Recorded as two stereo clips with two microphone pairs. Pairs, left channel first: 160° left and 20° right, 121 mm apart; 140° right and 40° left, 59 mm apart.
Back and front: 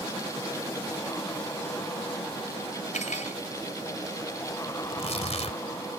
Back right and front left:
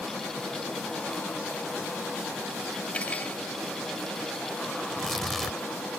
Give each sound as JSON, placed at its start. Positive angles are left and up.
{"t": 2.9, "sound": "cutlery clinking", "azimuth_deg": 150}
{"t": 4.8, "sound": "tearing paper", "azimuth_deg": 130}